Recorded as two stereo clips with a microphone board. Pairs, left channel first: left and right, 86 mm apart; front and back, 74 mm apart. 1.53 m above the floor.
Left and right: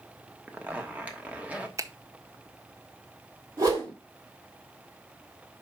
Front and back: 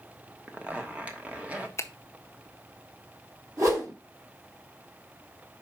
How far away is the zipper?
About 1.1 m.